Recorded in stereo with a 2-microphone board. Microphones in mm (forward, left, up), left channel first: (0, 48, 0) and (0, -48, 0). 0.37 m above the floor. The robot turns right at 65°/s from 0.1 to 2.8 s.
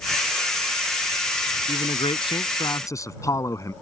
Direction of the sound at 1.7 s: 70° left.